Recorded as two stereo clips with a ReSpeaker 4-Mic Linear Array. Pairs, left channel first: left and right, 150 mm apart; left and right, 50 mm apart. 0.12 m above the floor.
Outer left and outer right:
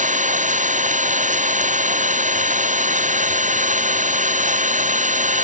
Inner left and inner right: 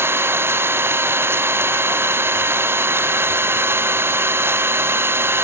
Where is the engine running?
55° right (ahead or behind).